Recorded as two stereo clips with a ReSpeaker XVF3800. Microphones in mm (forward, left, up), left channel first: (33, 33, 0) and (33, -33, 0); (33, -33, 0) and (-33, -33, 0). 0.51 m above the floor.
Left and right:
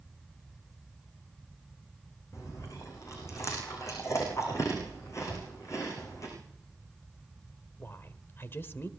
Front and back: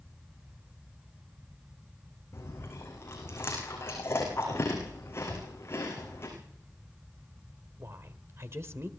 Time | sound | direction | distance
2.3 | chewing | 50° left | 8 m
5.3 | a whoosh | 55° left | 5 m
7.8 | a woman speaking | 140° left | 1.6 m